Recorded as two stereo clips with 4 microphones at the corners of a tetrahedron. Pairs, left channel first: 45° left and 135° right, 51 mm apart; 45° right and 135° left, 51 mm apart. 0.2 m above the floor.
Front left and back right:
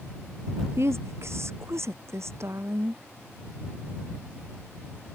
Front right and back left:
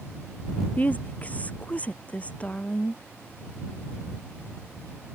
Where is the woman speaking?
105° right; by 3.0 s 110° right.